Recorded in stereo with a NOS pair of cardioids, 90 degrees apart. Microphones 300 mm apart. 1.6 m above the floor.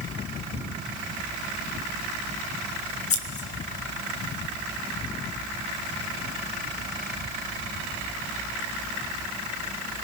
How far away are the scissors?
About 2 m.